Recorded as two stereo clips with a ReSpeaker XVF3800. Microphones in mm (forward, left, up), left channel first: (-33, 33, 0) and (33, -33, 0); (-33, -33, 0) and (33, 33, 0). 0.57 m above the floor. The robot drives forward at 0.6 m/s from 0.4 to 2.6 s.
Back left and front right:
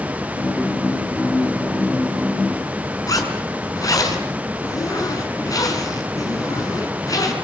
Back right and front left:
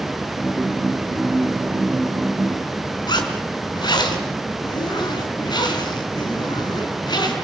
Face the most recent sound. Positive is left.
turn(degrees=-175)